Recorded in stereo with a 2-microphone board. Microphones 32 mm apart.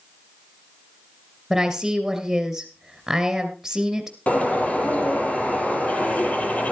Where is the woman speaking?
5° right (ahead or behind), 2 m.